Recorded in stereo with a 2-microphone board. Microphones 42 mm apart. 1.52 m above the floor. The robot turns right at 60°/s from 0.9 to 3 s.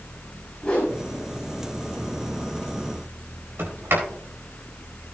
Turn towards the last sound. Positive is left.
turn(degrees=-65)  # may be behind; listen again after turning